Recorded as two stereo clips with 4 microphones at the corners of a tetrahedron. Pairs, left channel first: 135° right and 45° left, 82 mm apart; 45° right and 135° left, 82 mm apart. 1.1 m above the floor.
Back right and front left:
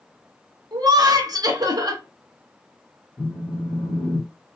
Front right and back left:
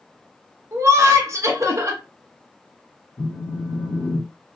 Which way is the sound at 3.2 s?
45° right.